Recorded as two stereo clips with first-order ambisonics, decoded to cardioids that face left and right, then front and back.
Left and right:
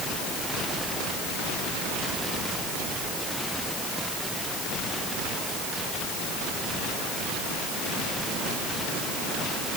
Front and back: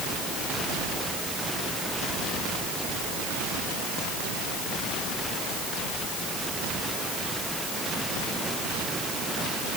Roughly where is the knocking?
No knocking in this recording.